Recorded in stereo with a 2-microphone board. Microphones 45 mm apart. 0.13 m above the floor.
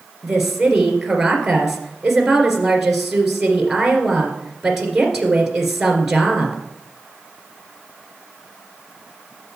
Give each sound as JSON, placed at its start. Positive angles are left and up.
{"t": 0.2, "sound": "a woman speaking", "side_deg": -5, "distance_m": 2.5}